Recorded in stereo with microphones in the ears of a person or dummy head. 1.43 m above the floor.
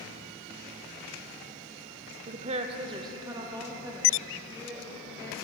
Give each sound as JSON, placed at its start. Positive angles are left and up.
{"t": 2.3, "sound": "a woman speaking", "side_deg": -35, "distance_m": 0.6}